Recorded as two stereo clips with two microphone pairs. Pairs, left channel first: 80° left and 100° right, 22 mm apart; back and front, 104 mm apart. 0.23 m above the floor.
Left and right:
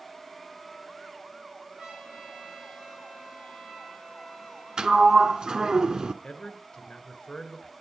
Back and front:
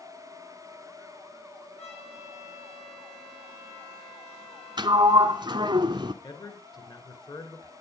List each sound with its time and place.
1.8 s a trumpet: 165° right, 4 m
4.8 s a sliding door: 40° right, 0.9 m
6.2 s a man speaking: 140° left, 3 m